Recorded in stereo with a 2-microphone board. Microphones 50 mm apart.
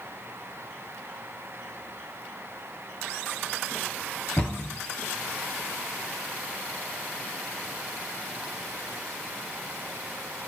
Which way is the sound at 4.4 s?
35° left (ahead or behind).